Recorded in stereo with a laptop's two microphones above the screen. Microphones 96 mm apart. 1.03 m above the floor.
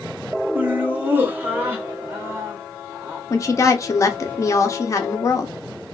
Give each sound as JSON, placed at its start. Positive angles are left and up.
{"t": 0.6, "sound": "laughter", "side_deg": -15, "distance_m": 1.5}
{"t": 3.3, "sound": "a woman speaking", "side_deg": 35, "distance_m": 1.1}